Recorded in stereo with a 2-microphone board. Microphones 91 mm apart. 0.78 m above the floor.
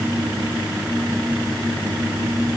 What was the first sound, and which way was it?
Only background noise.